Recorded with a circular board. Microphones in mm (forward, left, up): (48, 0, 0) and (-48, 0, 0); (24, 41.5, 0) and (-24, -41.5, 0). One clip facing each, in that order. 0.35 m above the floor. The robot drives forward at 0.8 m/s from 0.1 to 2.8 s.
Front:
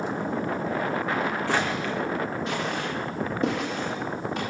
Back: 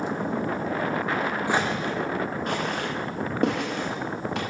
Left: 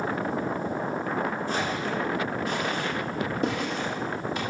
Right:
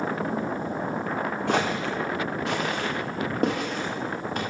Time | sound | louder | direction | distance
1.5 | footsteps | back 1 dB, right 3 dB | 100° right | 1.7 m